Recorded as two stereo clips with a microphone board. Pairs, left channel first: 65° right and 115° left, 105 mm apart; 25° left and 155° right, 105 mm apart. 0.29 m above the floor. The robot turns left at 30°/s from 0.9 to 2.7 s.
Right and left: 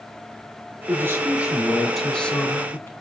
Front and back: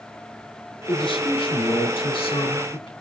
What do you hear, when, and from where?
0.9 s a man speaking: 50° left, 3 m; by 2.9 s 5° right, 3 m